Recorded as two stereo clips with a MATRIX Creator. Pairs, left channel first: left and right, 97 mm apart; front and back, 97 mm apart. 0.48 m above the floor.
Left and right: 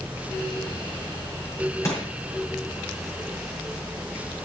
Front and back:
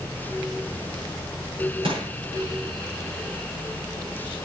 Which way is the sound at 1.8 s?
150° left.